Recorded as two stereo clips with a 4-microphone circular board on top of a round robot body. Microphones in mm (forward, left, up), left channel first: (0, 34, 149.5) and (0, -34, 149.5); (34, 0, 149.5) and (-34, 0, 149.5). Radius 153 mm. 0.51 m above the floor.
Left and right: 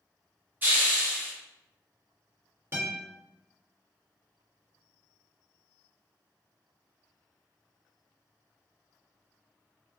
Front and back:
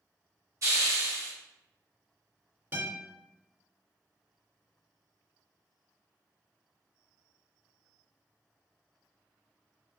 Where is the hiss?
145° right, 1.2 m.